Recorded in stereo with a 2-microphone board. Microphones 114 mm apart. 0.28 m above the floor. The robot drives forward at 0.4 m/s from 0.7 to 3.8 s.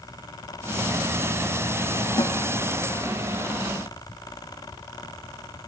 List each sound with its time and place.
2.2 s a snare drum: 35° left (ahead or behind), 0.6 m